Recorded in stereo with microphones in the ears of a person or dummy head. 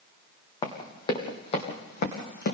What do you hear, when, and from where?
0.6 s running footsteps: 25° left (ahead or behind), 2.5 m; by 2.5 s 55° left (ahead or behind), 3 m